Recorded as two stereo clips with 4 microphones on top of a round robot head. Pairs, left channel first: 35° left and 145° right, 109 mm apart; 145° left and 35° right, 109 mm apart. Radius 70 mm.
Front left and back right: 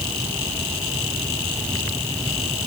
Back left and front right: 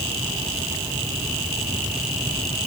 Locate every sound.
Only background noise.